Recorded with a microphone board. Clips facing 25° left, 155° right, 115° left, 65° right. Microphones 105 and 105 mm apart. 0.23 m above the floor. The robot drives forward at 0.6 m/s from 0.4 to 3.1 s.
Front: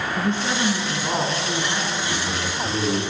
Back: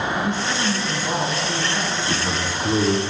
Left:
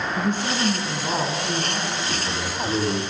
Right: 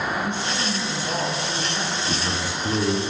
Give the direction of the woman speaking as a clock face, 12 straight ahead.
9 o'clock.